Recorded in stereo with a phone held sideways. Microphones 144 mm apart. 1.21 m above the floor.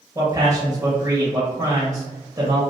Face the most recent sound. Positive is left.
turn(degrees=-25)  # may be behind; listen again after turning